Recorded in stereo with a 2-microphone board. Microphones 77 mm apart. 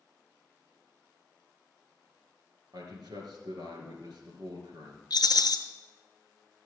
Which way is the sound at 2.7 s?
70° right (ahead or behind).